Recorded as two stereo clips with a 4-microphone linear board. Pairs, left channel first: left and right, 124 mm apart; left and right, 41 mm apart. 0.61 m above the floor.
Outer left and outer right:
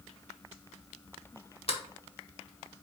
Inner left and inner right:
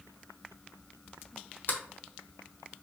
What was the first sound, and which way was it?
A sliding door, 55° left (ahead or behind).